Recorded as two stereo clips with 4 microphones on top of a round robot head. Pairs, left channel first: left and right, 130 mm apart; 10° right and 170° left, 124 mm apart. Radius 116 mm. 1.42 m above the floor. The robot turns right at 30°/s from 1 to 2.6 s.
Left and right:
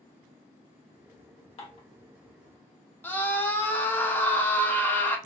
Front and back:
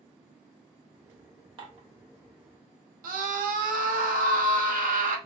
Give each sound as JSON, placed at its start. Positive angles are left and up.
{"t": 1.6, "sound": "dishes clattering", "azimuth_deg": 125, "distance_m": 0.8}
{"t": 3.0, "sound": "a scream", "azimuth_deg": 165, "distance_m": 0.7}